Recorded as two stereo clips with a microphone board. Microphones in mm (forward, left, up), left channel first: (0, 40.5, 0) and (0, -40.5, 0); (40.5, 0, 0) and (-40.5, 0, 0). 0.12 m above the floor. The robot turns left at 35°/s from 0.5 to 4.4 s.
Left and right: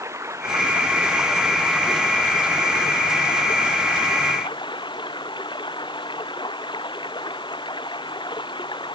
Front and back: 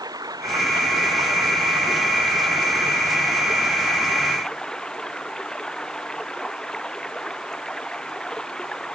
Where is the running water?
140° right; by 8.9 s 80° left.